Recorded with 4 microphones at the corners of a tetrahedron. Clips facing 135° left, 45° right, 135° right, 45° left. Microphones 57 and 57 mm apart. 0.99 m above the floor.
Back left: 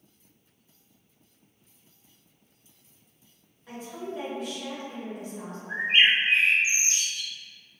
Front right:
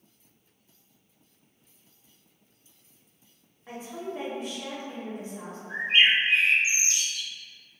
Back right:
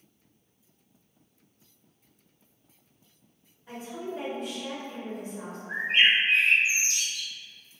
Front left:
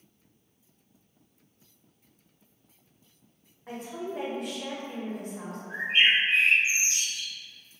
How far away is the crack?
No crack in this recording.